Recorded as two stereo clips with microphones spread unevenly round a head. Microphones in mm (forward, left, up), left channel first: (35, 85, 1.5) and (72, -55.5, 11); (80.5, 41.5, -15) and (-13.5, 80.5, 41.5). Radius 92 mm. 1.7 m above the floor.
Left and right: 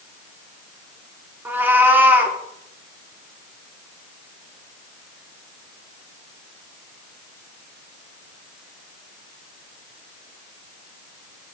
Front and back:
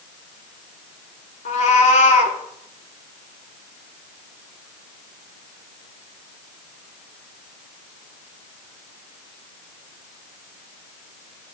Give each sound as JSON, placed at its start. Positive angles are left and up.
{"t": 1.4, "sound": "a cat meowing", "azimuth_deg": -15, "distance_m": 1.4}